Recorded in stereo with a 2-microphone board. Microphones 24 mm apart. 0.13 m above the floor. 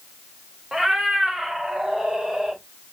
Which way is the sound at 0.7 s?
20° right (ahead or behind).